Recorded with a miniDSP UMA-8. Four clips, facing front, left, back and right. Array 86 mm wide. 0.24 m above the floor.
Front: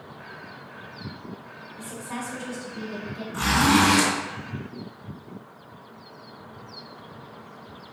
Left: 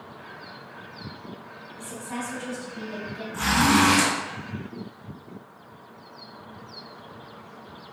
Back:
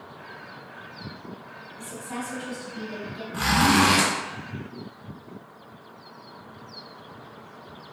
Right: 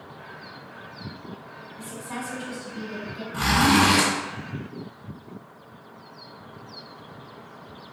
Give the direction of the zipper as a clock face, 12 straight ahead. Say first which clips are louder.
Right 1 dB, even; 5 o'clock.